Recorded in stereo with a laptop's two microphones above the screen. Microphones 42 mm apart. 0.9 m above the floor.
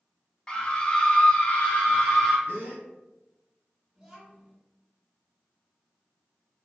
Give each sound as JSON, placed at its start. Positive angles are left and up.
{"t": 0.5, "sound": "a scream", "side_deg": 15, "distance_m": 0.7}
{"t": 2.5, "sound": "a gasp", "side_deg": -60, "distance_m": 1.2}
{"t": 4.0, "sound": "a child speaking", "side_deg": -15, "distance_m": 1.6}